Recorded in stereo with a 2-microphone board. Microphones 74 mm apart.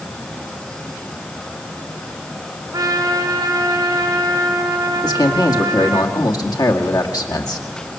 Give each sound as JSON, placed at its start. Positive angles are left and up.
{"t": 2.7, "sound": "a trumpet", "side_deg": -50, "distance_m": 4.0}
{"t": 5.0, "sound": "a man speaking", "side_deg": 65, "distance_m": 2.0}